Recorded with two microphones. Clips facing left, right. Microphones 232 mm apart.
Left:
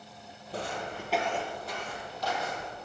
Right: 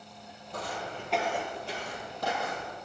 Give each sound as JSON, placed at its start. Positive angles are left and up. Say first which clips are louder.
{"t": 0.5, "sound": "footsteps", "louder": "left 2 dB", "side_deg": 35, "distance_m": 1.4}